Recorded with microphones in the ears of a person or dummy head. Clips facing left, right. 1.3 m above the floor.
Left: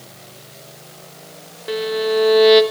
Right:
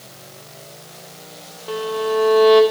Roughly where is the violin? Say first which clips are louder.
Left 2 dB; left.